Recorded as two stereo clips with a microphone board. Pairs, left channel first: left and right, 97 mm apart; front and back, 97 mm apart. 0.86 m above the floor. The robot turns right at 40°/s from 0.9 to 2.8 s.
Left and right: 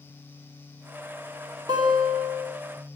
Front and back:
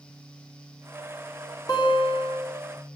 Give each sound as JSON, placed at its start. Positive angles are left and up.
{"t": 1.7, "sound": "a guitar", "azimuth_deg": -45, "distance_m": 2.0}